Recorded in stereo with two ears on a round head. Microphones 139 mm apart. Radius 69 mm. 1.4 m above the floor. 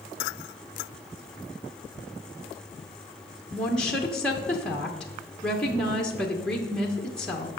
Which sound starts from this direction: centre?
A woman speaking, at 3.5 s.